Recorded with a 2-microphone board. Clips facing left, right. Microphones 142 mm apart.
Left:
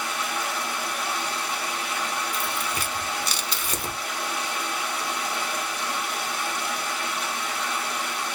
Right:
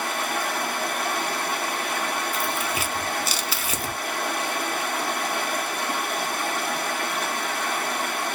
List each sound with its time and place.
0.0 s running water: 55° right (ahead or behind), 0.7 m
2.3 s tearing paper: 5° right (ahead or behind), 0.6 m